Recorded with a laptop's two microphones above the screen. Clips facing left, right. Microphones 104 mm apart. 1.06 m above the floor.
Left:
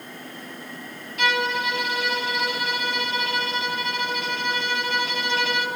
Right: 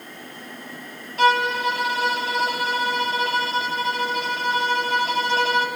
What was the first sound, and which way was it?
A violin, 35° right (ahead or behind).